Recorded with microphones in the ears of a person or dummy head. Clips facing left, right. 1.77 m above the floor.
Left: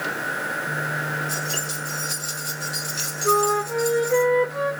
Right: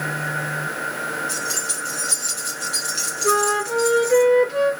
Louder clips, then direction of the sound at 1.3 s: Even; 20° right (ahead or behind).